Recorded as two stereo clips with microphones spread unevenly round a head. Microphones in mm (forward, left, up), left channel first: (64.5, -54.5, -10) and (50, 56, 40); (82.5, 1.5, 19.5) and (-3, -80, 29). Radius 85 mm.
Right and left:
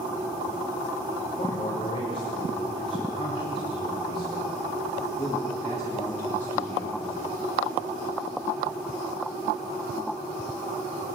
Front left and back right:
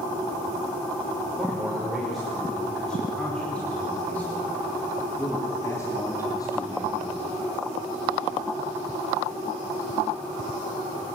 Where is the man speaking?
50° right, 5.5 m; by 7.0 s 10° right, 3 m.